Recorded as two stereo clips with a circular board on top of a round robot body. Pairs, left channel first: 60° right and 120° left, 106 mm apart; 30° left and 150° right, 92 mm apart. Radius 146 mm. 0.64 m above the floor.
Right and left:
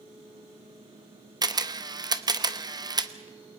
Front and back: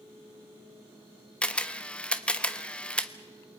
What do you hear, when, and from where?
1.4 s a camera shutter: 100° left, 1.3 m